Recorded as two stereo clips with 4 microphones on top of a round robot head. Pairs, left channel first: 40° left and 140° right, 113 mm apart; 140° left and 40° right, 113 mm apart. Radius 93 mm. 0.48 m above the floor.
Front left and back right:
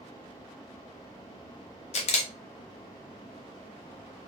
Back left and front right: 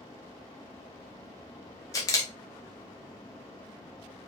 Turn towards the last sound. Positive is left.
turn(degrees=75)